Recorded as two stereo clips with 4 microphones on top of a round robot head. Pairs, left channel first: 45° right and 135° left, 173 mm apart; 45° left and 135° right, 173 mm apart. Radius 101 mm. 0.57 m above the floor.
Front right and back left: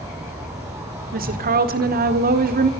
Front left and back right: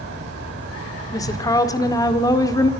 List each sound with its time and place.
0.0 s an insect: 150° right, 7 m
1.1 s a woman speaking: 115° left, 1.8 m